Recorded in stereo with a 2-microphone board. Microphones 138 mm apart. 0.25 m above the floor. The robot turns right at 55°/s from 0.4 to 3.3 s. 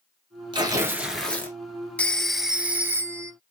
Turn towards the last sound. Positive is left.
turn(degrees=-125)